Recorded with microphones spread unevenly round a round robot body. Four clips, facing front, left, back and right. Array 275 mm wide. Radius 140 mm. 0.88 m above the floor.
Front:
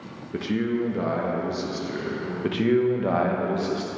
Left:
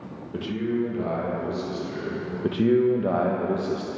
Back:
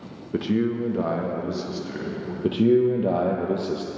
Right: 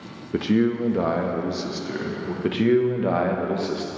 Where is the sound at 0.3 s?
120° right, 0.7 m; by 2.3 s 85° right, 2.0 m.